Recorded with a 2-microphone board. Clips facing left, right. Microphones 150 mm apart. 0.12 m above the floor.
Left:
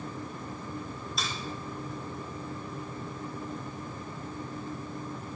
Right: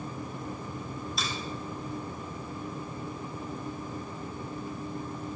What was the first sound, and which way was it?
A finger snap, centre (ahead or behind).